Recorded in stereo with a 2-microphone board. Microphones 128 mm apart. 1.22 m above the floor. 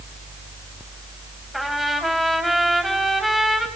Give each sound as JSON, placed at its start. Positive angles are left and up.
{"t": 1.5, "sound": "a trumpet", "side_deg": 0, "distance_m": 3.5}